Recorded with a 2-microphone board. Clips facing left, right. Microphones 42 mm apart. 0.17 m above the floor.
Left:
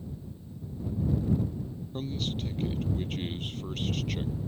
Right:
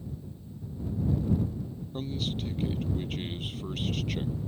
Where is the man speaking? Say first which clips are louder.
Even; centre (ahead or behind).